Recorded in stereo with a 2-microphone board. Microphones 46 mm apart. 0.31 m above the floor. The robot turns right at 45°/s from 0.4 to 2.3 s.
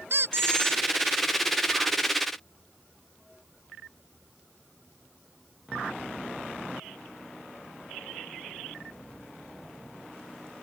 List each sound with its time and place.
0.1 s a squeak: 60° right (ahead or behind); by 0.8 s 80° right